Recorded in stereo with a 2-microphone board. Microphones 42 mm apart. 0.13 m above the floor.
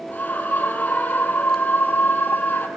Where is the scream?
40° left (ahead or behind), 4 m.